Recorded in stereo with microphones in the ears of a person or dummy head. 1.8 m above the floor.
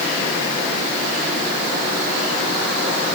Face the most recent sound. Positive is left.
No sound to turn to.